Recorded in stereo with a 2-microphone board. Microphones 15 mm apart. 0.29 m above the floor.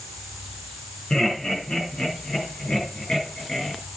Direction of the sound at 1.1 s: 55° left (ahead or behind).